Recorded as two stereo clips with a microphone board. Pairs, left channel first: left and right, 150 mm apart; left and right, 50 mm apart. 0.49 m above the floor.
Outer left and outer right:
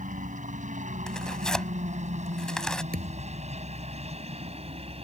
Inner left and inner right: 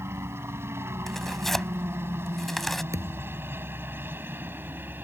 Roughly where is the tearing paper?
Centre.